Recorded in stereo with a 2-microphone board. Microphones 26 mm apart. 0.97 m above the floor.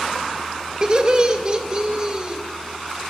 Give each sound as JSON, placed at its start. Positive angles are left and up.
{"t": 0.8, "sound": "laughter", "side_deg": -35, "distance_m": 1.2}